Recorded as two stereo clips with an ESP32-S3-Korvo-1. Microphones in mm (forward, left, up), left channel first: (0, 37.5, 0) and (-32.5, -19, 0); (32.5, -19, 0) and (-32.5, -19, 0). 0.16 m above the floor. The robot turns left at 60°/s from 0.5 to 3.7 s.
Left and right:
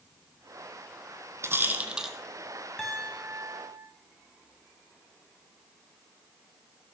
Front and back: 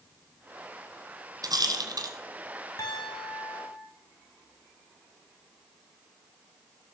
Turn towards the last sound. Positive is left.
turn(degrees=-75)